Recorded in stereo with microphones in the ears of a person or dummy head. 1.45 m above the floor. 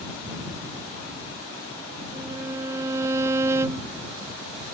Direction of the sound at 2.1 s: 15° right (ahead or behind).